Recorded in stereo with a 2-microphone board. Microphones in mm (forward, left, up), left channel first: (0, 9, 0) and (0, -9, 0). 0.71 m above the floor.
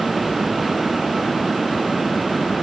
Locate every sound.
Only background noise.